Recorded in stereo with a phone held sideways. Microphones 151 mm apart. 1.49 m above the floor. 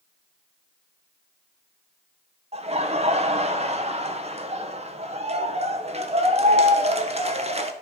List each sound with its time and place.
2.5 s laughter: 40° right (ahead or behind), 1.2 m